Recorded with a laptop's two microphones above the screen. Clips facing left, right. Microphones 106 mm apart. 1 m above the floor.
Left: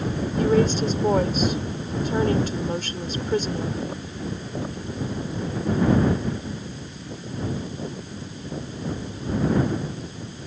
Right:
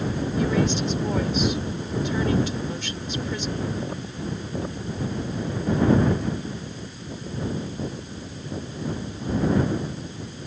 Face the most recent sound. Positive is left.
turn(degrees=45)  # may be behind; listen again after turning